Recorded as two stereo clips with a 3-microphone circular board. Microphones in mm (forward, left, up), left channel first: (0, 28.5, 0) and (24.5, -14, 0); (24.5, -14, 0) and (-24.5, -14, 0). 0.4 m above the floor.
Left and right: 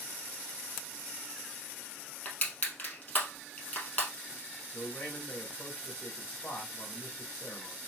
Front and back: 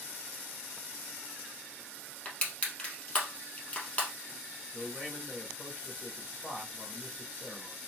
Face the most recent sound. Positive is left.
turn(degrees=85)